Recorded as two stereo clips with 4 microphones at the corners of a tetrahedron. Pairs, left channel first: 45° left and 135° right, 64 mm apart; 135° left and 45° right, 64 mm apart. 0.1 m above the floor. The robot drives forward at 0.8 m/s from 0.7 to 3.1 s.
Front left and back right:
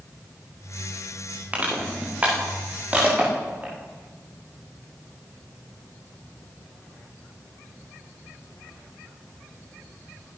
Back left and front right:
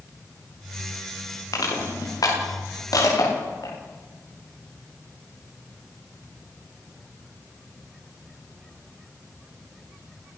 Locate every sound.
1.5 s crushing: 155° left, 10 m; by 3.7 s 160° left, 11 m